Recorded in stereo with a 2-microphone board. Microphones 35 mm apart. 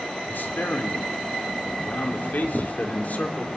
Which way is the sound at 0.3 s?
75° left (ahead or behind).